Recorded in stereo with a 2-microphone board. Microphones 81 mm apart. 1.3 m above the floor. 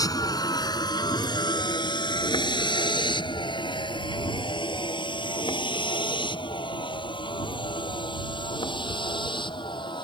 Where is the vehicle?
50° left (ahead or behind); by 10.1 s 85° left.